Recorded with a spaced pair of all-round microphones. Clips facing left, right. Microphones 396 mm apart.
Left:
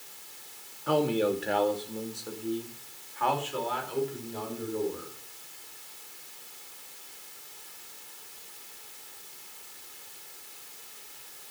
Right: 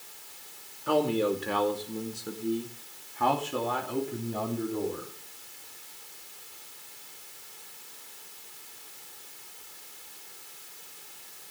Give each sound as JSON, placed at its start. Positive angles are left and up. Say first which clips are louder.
{"t": 0.9, "sound": "a man speaking", "louder": "even", "side_deg": 0, "distance_m": 2.0}